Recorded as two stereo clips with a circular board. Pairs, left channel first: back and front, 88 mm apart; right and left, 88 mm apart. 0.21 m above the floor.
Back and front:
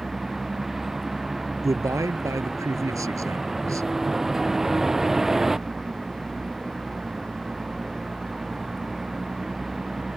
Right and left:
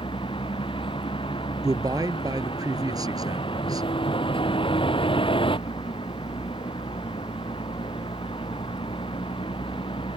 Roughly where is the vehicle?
Right.